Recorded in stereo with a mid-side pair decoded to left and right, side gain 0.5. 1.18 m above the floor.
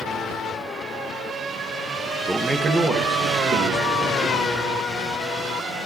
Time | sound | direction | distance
2.3 | a man speaking | 15° right | 1.2 m